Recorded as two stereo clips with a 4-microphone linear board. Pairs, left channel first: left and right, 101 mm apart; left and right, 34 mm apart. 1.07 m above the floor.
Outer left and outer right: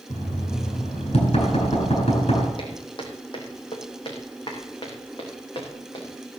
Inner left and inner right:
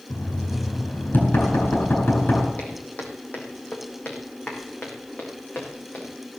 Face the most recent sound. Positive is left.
turn(degrees=45)  # may be behind; listen again after turning